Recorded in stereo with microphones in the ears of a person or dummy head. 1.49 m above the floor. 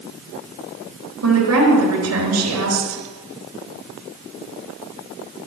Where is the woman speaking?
85° right, 4 m.